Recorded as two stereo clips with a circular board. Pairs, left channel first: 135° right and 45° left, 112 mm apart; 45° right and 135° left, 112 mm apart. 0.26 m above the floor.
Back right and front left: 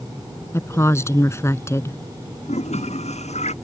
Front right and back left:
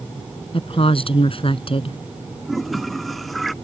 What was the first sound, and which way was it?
A woman speaking, 70° right.